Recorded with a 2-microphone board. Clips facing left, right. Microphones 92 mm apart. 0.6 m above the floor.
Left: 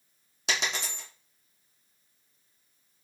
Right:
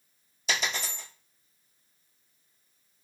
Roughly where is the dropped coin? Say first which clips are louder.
Even; left.